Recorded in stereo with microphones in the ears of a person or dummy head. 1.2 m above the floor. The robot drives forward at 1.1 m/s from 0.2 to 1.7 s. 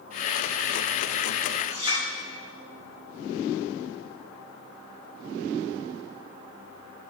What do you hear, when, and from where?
1.7 s a clink: 25° right (ahead or behind), 1.9 m